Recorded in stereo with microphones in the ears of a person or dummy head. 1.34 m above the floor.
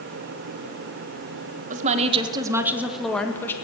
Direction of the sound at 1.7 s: 40° right (ahead or behind).